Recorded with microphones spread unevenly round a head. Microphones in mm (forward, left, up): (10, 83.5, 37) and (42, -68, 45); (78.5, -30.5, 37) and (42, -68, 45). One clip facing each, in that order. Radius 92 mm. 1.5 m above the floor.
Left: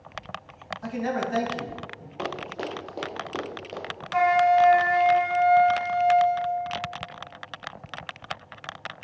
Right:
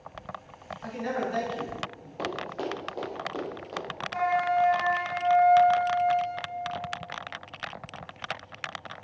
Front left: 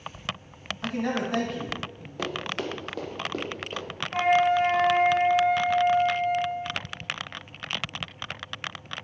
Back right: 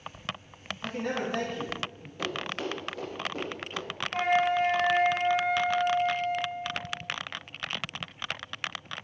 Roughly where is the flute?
Behind left.